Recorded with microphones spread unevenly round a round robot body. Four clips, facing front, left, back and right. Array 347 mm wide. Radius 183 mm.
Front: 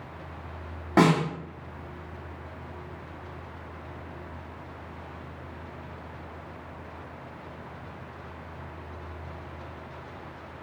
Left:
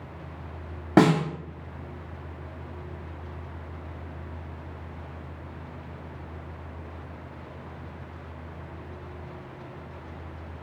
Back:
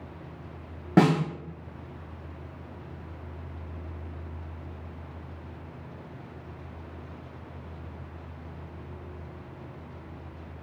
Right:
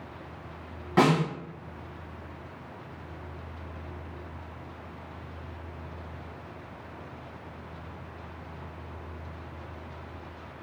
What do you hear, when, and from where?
1.0 s a snare drum: 115° left, 0.7 m